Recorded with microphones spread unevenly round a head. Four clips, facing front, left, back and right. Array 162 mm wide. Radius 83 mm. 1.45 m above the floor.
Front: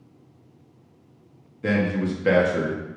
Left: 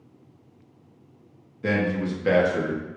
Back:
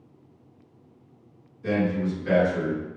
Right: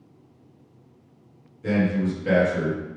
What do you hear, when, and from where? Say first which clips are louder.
1.6 s a man speaking: right 2 dB, front 2 dB; 35° left, 2.5 m; by 2.8 s 20° left, 2.5 m